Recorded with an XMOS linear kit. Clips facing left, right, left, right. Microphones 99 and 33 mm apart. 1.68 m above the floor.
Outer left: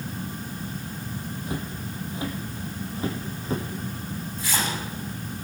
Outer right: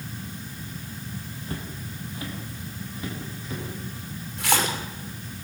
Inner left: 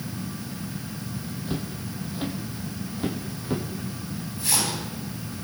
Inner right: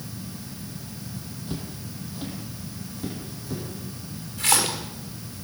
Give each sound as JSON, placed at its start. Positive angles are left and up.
{"t": 1.5, "sound": "footsteps", "side_deg": 15, "distance_m": 4.0}
{"t": 4.4, "sound": "a splash", "side_deg": -70, "distance_m": 5.5}